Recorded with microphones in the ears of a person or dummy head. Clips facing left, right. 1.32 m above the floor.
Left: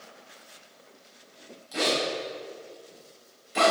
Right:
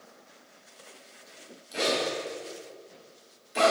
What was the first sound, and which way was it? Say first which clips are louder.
A zipper: left 1 dB; 30° left (ahead or behind).